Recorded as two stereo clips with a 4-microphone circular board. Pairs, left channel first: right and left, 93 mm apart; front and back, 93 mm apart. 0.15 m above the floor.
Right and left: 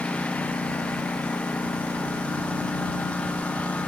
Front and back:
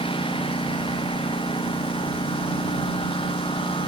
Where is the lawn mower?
15° right.